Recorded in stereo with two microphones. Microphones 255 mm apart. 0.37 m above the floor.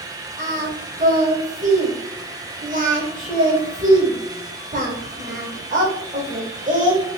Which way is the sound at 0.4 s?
30° right (ahead or behind).